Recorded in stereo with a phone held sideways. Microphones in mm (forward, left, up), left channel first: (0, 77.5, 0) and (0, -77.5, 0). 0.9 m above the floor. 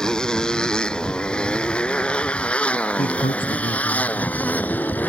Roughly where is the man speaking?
Left.